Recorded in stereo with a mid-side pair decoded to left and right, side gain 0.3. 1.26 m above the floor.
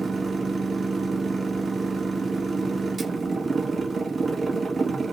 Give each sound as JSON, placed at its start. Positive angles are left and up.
{"t": 0.0, "sound": "a machine running", "azimuth_deg": -55, "distance_m": 1.3}